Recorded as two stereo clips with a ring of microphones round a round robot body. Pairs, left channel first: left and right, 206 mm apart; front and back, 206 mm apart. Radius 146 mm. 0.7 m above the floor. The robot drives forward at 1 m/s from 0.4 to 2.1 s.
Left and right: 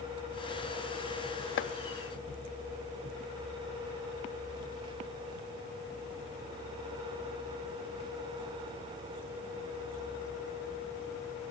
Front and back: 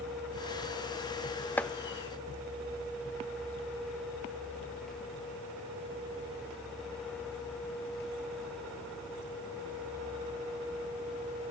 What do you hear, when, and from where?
1.6 s chopping: 80° left, 0.7 m; by 1.7 s 95° left, 0.7 m